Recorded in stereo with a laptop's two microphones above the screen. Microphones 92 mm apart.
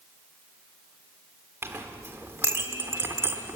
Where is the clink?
30° right (ahead or behind), 1.5 m.